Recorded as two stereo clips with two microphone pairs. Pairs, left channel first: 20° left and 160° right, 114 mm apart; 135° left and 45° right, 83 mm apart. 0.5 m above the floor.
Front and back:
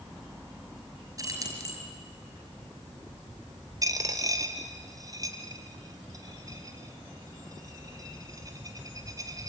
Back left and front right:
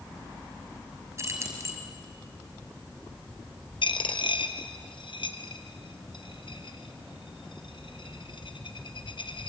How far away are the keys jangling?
About 5.5 m.